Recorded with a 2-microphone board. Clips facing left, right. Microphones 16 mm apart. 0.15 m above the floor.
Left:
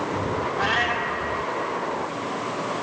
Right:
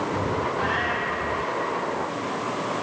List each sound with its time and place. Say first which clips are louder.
0.6 s a cat meowing: left 2 dB; 75° left (ahead or behind), 1.5 m